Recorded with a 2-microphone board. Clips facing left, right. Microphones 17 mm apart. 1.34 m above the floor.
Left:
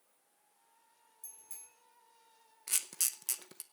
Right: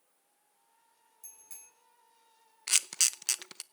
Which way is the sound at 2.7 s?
40° right (ahead or behind).